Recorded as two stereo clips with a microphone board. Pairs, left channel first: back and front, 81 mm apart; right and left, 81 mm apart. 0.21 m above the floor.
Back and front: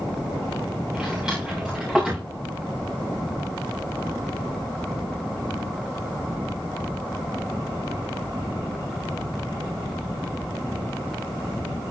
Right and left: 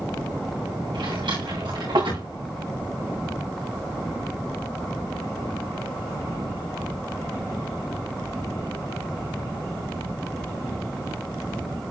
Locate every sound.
0.9 s a drawer: 80° left, 9 m